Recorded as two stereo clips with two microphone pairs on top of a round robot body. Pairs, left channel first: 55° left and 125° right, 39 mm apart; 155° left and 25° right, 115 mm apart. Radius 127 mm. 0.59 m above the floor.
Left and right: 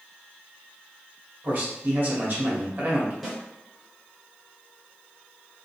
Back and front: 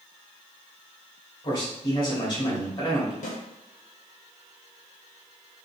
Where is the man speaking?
170° right, 1.8 m.